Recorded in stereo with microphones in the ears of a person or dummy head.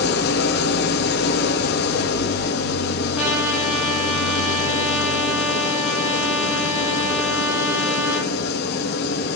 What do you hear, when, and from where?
0.0 s an engine running: 60° left (ahead or behind), 1.4 m
3.2 s a trumpet: 10° right (ahead or behind), 3.5 m